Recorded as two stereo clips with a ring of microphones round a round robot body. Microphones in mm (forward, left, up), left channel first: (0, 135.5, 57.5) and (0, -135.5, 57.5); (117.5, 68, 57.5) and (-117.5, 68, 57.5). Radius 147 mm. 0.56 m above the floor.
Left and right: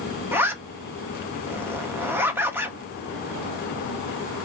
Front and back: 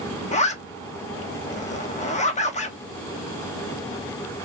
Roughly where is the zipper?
Ahead.